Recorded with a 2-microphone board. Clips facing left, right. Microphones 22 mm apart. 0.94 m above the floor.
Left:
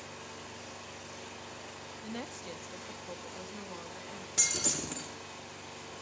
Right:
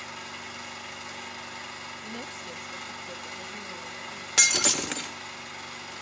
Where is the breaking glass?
55° right (ahead or behind), 1.2 m.